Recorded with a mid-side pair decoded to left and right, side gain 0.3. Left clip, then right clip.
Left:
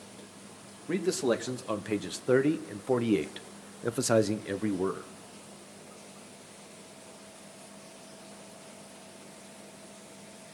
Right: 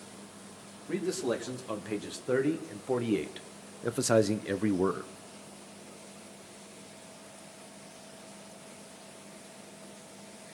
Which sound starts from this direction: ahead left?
A man speaking, at 0.9 s.